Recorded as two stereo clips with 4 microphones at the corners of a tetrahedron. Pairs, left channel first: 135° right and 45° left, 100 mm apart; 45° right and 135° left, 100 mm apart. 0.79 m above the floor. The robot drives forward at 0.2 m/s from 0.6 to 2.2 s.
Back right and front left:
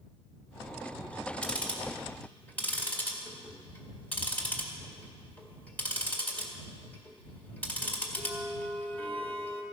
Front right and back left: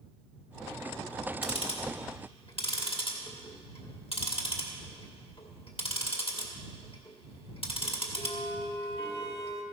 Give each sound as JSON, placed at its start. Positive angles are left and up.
{"t": 1.4, "sound": "ticking", "azimuth_deg": -60, "distance_m": 2.0}